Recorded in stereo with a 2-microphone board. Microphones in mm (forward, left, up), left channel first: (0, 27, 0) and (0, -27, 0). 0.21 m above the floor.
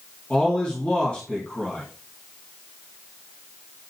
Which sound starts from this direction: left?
A man speaking, at 0.3 s.